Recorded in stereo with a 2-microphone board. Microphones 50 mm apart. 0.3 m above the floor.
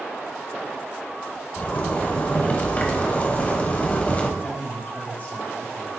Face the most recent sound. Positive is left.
turn(degrees=40)  # may be behind; listen again after turning